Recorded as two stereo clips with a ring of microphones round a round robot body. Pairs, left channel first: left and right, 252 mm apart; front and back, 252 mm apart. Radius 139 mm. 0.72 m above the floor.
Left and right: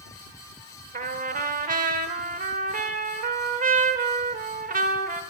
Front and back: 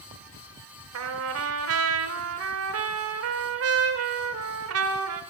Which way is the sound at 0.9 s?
150° right.